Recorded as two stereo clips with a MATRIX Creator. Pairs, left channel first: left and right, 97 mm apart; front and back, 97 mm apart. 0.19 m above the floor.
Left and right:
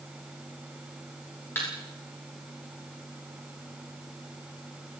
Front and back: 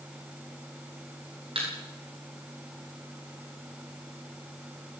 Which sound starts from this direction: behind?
A thud, at 1.6 s.